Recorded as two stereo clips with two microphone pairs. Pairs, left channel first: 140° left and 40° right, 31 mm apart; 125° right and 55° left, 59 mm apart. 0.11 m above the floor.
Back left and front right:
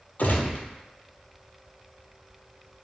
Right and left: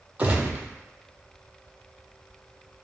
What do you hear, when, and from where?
0.2 s a gunshot: 120° left, 0.5 m